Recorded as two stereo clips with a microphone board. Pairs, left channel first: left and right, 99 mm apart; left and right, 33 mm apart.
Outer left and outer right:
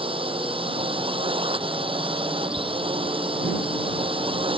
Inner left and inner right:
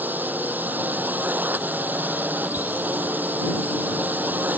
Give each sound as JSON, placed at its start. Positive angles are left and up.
{"t": 0.0, "sound": "a drone", "side_deg": -65}
{"t": 2.6, "sound": "ticking", "side_deg": -55}